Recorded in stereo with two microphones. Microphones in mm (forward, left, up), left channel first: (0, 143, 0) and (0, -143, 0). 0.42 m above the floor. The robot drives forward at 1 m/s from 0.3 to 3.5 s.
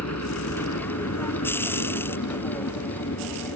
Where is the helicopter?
65° left (ahead or behind); by 3.6 s 70° left (ahead or behind).